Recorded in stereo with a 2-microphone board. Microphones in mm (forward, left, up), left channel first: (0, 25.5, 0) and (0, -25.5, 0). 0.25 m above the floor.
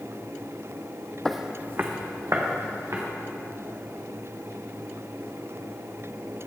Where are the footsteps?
10° left (ahead or behind), 0.5 m; by 3.0 s 65° right (ahead or behind), 2.5 m.